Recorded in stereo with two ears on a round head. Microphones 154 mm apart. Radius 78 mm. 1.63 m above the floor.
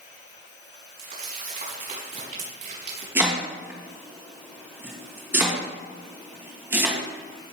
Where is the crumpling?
55° right (ahead or behind), 5.5 m.